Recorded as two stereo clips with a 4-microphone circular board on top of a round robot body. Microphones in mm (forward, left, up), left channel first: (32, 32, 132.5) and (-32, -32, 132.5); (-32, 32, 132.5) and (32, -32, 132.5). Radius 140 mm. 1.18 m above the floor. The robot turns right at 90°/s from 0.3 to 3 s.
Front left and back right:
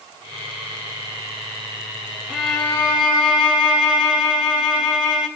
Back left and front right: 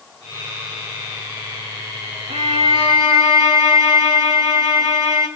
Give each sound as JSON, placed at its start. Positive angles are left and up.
{"t": 2.3, "sound": "a violin", "azimuth_deg": -55, "distance_m": 4.0}